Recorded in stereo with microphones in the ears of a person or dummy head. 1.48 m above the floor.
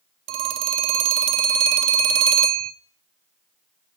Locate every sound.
0.3 s a phone ringing: 35° right (ahead or behind), 0.5 m